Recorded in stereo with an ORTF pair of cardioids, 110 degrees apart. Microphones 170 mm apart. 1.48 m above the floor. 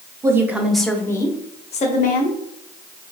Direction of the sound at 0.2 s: 15° right.